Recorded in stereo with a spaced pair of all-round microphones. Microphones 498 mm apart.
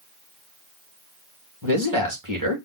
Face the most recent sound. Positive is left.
turn(degrees=-40)  # may be behind; listen again after turning